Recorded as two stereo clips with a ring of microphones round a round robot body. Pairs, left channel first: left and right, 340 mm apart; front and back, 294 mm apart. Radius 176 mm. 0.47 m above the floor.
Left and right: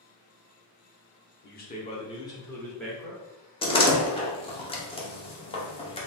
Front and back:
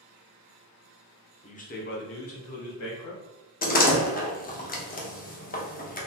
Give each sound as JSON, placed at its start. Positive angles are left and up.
{"t": 1.4, "sound": "a man speaking", "azimuth_deg": 55, "distance_m": 0.9}
{"t": 3.6, "sound": "a door slam", "azimuth_deg": 30, "distance_m": 0.9}